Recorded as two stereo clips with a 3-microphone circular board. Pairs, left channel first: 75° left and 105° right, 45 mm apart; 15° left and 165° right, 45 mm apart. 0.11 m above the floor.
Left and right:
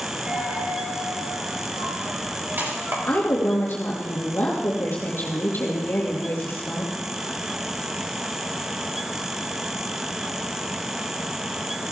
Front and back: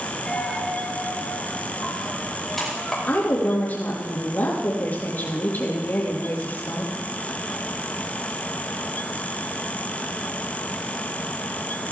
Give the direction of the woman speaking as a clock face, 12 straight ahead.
10 o'clock.